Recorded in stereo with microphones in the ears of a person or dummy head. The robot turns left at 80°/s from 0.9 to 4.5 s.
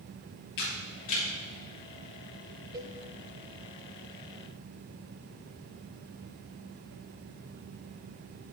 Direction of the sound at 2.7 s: 20° right (ahead or behind).